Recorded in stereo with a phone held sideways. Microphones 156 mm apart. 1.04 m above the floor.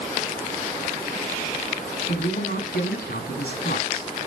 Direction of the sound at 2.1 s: 85° left.